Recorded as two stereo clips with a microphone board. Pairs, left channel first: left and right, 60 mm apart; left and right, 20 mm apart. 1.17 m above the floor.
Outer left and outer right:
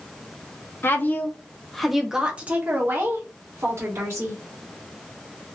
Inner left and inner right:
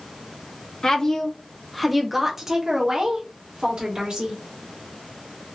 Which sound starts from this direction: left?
A woman speaking, at 0.8 s.